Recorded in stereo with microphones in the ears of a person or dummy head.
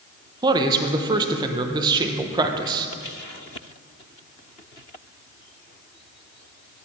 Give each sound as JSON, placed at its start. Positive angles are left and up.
{"t": 0.4, "sound": "a man speaking", "side_deg": -25, "distance_m": 0.7}